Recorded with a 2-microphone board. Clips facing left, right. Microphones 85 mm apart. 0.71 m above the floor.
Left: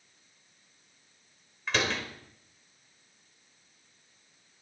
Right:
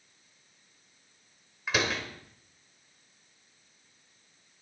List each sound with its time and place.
1.7 s a door slam: 5° right (ahead or behind), 2 m